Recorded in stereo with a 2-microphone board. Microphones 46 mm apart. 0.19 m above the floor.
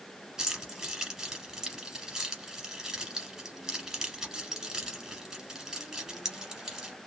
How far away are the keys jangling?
About 1.2 m.